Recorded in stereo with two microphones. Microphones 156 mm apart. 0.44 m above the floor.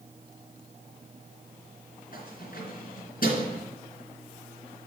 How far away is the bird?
No bird in this recording.